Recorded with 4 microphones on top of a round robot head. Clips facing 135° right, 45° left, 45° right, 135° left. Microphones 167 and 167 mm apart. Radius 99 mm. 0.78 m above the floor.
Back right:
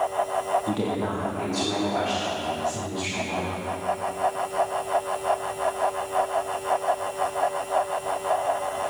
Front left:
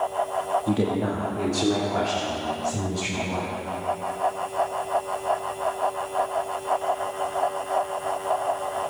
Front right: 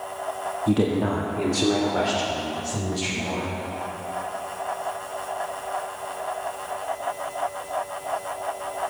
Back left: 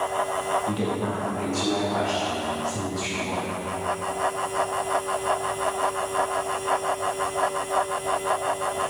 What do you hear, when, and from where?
0.7 s a woman speaking: 25° right, 1.7 m; by 3.5 s 10° left, 5.5 m